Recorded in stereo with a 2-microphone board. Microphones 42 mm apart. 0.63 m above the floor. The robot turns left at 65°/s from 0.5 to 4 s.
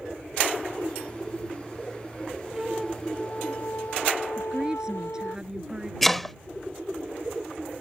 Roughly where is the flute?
Behind.